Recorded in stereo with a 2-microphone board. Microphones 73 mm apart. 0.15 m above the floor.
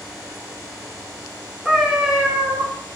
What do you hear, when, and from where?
1.6 s a cat meowing: 5° right (ahead or behind), 1.0 m